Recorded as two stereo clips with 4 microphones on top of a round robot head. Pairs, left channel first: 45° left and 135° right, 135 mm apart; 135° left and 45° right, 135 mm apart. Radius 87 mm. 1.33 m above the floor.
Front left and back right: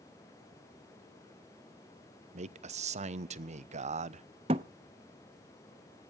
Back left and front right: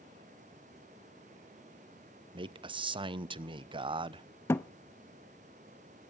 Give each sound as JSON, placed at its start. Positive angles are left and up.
{"t": 2.3, "sound": "a man speaking", "azimuth_deg": -100, "distance_m": 0.9}
{"t": 4.5, "sound": "a thud", "azimuth_deg": -160, "distance_m": 0.7}